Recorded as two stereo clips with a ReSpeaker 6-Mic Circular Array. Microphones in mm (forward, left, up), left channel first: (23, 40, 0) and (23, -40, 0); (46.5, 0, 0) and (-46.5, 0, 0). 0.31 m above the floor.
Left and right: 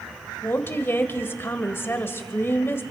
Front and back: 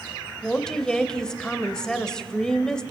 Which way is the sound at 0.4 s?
75° left.